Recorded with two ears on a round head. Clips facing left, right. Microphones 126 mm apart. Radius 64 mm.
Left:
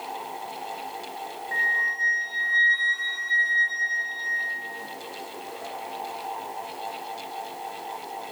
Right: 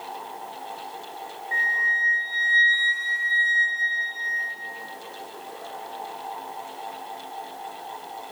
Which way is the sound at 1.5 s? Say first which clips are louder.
Right 3 dB; 30° right (ahead or behind).